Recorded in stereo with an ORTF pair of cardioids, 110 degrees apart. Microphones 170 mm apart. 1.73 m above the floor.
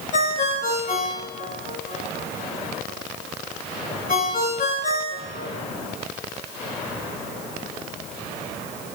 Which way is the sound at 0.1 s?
50° left.